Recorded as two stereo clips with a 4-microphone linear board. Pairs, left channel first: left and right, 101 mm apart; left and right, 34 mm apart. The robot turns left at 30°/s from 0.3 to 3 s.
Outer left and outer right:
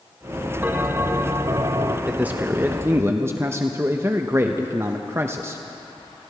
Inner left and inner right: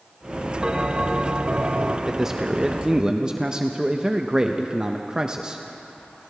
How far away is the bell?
About 0.8 m.